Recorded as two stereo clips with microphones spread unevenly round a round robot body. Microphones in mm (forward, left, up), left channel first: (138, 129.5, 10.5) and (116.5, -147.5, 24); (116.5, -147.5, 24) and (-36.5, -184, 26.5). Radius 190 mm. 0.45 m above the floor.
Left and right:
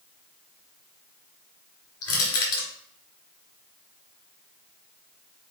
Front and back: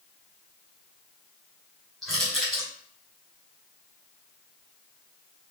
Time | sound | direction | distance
2.0 | crushing | 100° left | 1.7 m